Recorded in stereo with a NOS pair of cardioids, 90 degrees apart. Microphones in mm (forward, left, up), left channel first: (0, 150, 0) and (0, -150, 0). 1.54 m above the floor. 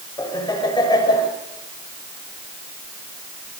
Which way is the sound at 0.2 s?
15° left.